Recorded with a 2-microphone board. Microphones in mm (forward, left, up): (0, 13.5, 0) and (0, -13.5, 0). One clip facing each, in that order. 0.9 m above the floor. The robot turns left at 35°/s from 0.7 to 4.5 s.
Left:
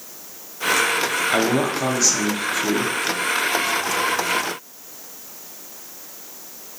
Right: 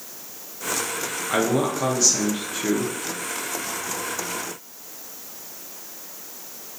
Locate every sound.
1.3 s a man speaking: 20° left (ahead or behind), 0.5 m; by 2.9 s 5° right (ahead or behind), 0.5 m